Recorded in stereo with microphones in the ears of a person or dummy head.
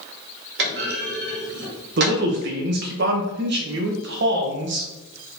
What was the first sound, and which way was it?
A clunk, 65° right (ahead or behind).